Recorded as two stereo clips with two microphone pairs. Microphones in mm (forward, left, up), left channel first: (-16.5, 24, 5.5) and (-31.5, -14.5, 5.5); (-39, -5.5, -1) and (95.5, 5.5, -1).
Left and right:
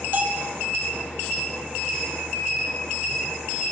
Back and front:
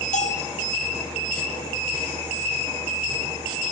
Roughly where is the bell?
Behind right.